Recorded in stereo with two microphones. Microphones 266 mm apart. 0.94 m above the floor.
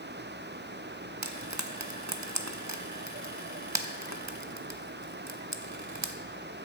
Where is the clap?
No clap in this recording.